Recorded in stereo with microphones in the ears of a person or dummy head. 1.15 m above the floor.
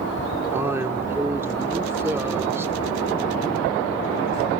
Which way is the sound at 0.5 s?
10° right (ahead or behind).